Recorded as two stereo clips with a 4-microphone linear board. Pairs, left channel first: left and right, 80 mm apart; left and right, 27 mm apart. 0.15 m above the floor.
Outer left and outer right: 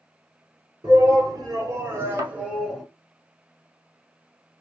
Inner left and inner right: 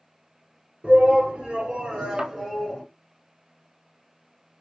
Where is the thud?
45° right (ahead or behind), 1.6 m.